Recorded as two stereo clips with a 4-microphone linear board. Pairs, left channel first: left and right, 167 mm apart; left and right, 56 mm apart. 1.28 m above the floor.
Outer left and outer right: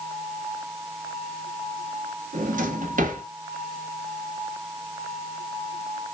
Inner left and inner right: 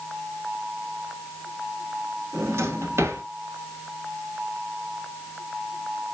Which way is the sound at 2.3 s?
55° right (ahead or behind).